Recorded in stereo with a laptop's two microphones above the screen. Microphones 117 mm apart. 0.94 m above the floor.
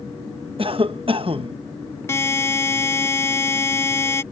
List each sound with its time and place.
0.6 s a cough: 50° right (ahead or behind)
2.1 s a buzzer: 25° left (ahead or behind)